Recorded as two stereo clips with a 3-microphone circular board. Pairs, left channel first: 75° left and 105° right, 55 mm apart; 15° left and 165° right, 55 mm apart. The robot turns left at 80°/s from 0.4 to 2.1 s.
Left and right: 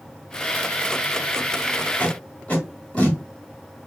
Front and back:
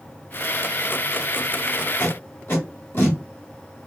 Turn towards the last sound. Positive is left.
turn(degrees=15)